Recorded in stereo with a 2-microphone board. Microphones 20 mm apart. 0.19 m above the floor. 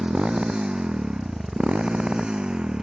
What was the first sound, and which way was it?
A motorcycle, 65° right (ahead or behind).